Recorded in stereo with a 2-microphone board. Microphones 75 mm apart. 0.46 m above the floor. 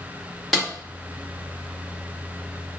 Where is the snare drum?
Centre (ahead or behind), 1.2 m.